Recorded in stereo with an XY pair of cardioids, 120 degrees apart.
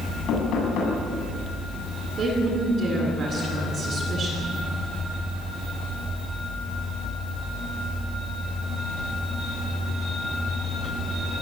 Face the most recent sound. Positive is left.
turn(degrees=-45)